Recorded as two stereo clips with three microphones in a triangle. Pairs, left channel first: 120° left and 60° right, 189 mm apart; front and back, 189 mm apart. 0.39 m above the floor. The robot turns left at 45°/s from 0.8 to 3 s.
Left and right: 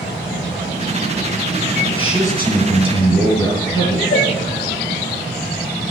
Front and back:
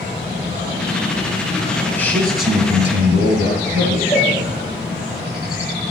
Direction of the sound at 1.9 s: 135° right.